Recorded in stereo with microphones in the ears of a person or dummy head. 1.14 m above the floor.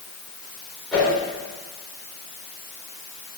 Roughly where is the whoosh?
Centre.